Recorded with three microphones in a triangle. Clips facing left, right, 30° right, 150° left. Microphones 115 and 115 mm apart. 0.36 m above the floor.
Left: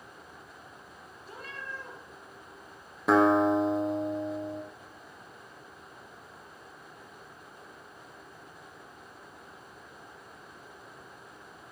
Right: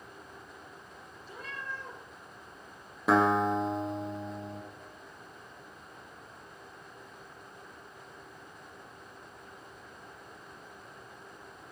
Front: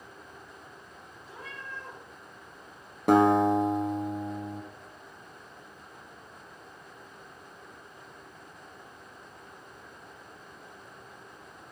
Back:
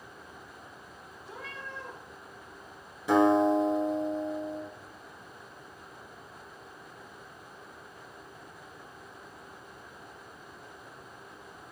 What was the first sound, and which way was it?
A cat meowing, 135° left.